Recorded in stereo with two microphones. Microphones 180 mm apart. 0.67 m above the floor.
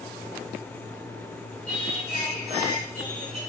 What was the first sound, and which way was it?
Singing, 55° left (ahead or behind).